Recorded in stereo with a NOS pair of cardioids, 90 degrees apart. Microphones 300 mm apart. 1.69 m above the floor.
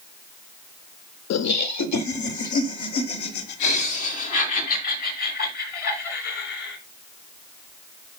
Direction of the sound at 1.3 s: 60° left.